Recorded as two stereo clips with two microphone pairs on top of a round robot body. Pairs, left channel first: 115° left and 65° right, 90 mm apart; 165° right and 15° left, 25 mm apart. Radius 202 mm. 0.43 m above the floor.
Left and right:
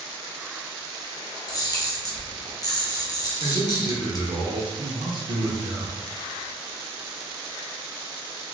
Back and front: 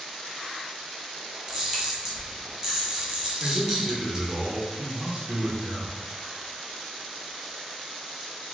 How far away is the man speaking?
About 1.6 m.